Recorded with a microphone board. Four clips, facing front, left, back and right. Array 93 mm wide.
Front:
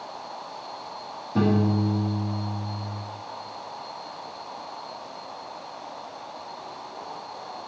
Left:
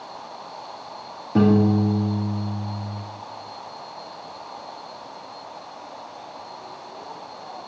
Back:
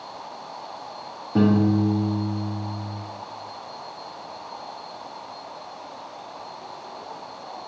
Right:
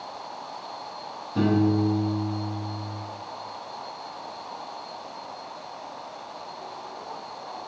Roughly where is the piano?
Left.